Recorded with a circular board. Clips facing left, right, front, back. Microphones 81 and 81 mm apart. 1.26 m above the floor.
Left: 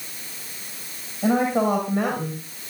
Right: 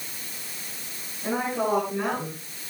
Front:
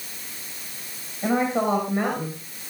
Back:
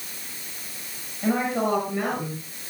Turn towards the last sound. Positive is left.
turn(degrees=55)